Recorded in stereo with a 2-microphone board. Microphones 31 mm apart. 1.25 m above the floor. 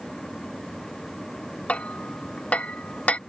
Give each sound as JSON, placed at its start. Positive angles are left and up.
{"t": 1.7, "sound": "hammering", "side_deg": 50}